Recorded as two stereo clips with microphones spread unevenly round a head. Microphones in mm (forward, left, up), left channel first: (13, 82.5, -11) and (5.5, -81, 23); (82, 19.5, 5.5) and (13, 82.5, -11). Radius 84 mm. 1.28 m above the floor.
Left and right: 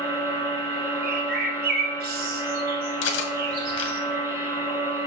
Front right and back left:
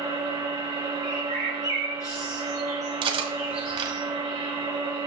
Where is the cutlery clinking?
110° left, 1.4 m.